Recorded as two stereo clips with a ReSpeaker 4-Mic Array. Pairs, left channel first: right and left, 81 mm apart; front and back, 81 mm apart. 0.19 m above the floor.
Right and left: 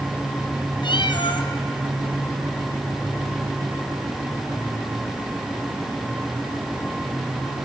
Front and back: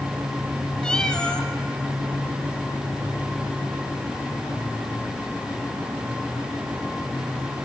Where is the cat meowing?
80° right, 1.7 m.